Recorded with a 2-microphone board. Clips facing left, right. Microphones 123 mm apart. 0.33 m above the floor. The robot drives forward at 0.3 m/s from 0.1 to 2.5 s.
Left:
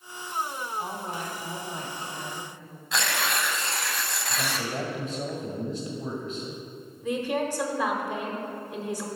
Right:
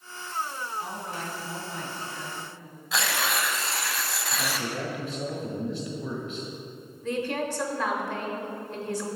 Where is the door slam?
No door slam in this recording.